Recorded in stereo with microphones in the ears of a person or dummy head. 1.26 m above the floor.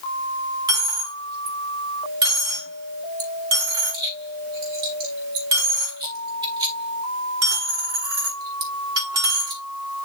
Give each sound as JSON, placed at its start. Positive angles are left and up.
{"t": 0.7, "sound": "a dropped coin", "side_deg": -20, "distance_m": 1.9}